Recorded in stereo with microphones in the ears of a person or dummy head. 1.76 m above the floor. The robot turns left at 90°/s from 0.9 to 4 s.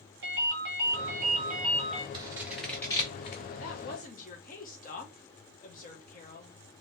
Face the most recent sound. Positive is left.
turn(degrees=50)